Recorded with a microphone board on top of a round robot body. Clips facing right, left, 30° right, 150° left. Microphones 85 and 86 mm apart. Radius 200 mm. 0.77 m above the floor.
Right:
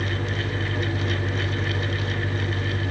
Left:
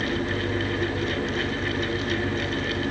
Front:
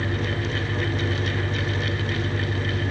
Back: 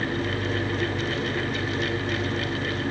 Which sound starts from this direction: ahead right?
An engine running, at 0.0 s.